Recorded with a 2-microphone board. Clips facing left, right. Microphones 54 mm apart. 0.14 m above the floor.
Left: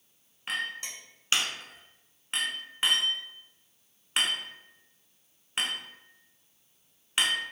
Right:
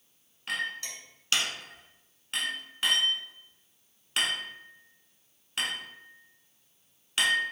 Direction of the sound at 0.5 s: 25° left (ahead or behind).